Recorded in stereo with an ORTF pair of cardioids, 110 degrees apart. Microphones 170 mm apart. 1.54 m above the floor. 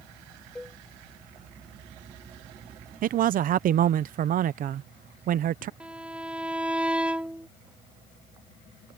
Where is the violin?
5° right.